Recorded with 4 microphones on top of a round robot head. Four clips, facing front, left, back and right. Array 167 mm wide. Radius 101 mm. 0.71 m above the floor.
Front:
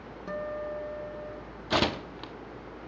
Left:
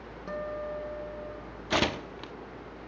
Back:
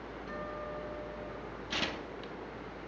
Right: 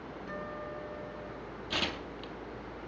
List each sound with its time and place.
0.3 s a guitar: 50° left, 2.5 m
1.7 s tearing paper: 40° left, 0.6 m